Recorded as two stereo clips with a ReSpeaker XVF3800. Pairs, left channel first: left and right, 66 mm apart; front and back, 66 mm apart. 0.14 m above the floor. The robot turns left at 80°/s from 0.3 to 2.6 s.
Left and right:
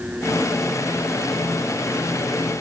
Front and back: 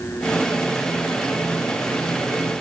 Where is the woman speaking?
No woman speaking in this recording.